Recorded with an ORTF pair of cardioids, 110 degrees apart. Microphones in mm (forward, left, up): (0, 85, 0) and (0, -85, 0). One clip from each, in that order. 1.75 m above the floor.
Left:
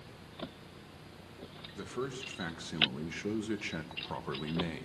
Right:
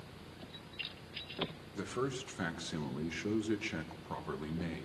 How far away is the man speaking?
About 2.5 m.